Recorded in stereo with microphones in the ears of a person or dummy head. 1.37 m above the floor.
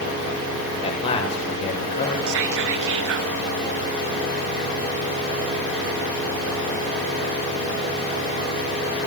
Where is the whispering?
65° right (ahead or behind), 1.3 m.